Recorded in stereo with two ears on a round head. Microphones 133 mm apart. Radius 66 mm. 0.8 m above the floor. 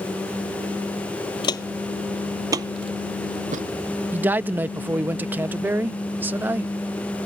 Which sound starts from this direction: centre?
A man speaking, at 4.1 s.